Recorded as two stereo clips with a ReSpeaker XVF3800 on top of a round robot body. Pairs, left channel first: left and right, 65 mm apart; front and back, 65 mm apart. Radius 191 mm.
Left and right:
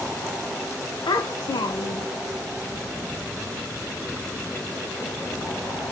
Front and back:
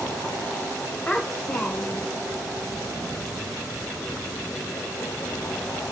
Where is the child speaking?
75° left, 0.6 m.